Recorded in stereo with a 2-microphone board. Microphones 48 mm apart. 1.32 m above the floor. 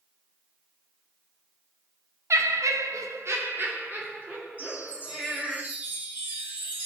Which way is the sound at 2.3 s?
65° right (ahead or behind).